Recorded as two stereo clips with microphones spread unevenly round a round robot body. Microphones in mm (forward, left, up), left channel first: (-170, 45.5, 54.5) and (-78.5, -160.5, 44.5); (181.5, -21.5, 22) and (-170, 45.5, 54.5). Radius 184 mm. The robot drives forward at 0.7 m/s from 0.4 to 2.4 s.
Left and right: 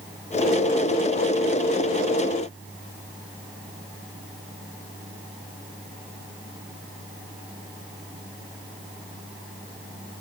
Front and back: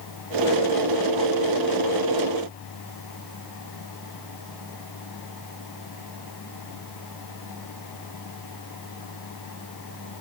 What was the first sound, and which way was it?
Only background noise.